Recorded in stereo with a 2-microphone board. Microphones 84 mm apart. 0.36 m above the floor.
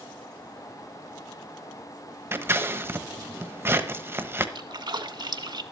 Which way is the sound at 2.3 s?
30° right (ahead or behind).